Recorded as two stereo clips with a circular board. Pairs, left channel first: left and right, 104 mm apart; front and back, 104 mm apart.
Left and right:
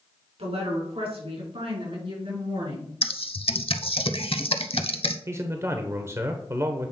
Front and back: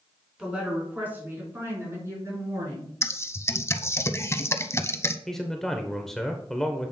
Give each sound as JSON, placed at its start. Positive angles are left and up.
{"t": 0.4, "sound": "a woman speaking", "azimuth_deg": -100, "distance_m": 3.5}
{"t": 3.0, "sound": "typing on a keyboard", "azimuth_deg": 65, "distance_m": 0.6}
{"t": 5.3, "sound": "a man speaking", "azimuth_deg": -80, "distance_m": 0.8}